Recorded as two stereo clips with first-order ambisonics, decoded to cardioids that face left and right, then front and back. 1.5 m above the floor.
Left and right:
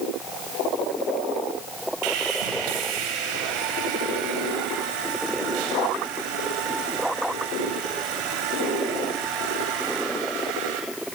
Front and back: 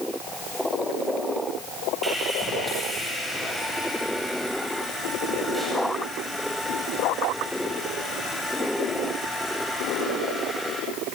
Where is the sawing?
95° right, 9 m.